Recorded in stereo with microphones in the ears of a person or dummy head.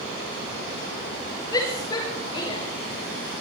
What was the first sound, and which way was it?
A shout, 30° left (ahead or behind).